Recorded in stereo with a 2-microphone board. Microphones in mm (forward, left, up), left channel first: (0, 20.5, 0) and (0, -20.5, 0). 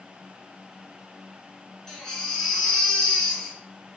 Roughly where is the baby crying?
Centre.